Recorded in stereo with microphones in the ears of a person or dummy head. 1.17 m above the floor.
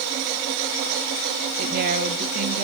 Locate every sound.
1.6 s a woman speaking: 50° right (ahead or behind), 1.6 m; by 2.6 s 40° right (ahead or behind), 2 m